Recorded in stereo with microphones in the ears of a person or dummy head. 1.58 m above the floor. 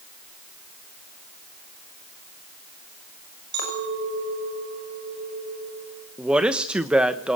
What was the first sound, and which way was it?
A clink, 60° right (ahead or behind).